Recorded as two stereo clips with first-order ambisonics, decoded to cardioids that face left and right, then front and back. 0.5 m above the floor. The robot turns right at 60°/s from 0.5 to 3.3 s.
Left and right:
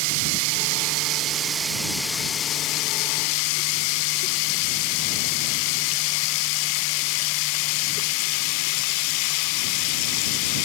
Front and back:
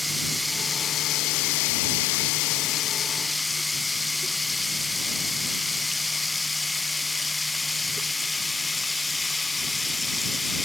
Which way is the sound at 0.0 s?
85° right.